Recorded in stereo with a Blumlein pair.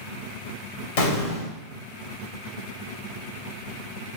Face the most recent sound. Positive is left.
turn(degrees=55)